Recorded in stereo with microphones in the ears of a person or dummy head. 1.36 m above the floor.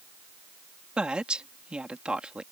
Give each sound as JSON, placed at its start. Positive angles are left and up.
{"t": 1.0, "sound": "a woman speaking", "side_deg": -5}